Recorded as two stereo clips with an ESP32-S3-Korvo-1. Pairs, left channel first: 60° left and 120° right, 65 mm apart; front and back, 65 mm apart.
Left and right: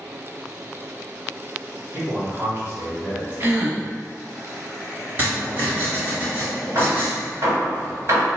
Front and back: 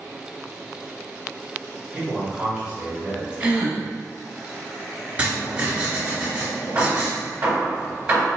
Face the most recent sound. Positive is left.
turn(degrees=-135)